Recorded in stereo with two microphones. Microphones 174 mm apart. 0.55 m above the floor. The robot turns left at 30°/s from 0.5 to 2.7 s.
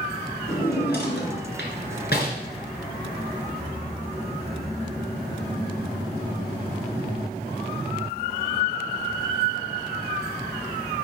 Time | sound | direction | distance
0.5 | a drawer | 60° left (ahead or behind) | 2.5 m